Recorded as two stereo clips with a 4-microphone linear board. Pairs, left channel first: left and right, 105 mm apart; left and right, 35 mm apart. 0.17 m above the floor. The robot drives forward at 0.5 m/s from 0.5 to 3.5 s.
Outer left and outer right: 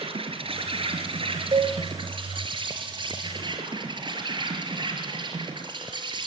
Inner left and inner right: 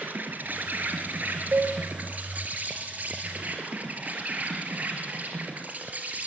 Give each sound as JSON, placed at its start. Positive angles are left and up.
{"t": 0.0, "sound": "an insect", "side_deg": -60, "distance_m": 3.5}
{"t": 1.5, "sound": "a cowbell", "side_deg": -45, "distance_m": 4.0}